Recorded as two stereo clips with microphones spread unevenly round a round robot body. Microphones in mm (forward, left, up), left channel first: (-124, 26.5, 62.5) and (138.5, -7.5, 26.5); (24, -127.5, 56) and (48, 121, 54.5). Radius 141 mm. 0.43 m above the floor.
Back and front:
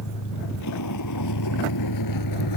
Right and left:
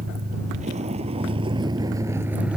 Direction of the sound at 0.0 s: 145° left.